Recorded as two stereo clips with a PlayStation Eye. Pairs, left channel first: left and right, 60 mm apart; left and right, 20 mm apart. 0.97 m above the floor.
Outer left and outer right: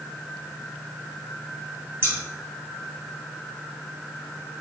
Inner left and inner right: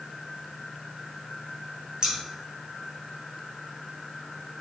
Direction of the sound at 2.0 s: 40° right (ahead or behind).